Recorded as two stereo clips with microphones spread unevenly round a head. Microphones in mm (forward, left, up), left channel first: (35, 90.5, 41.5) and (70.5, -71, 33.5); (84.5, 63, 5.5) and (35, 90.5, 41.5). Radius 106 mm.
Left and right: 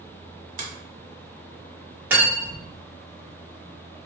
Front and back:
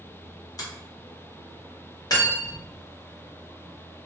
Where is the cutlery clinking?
Straight ahead, 1.3 m.